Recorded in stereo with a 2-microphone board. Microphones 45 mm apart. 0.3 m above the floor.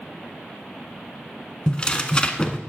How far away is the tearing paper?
About 0.9 m.